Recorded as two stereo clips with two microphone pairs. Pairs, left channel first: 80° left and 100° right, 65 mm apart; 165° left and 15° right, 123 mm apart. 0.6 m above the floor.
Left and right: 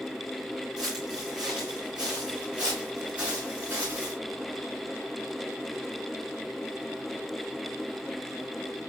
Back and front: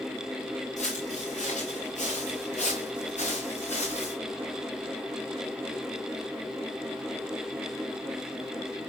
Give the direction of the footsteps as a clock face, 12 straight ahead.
6 o'clock.